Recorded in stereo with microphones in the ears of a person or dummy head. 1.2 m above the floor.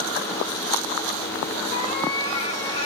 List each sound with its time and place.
1.7 s a cat meowing: 30° left (ahead or behind), 1.5 m